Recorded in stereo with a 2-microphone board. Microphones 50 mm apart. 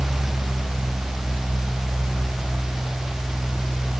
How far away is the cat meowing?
I don't hear a cat meowing.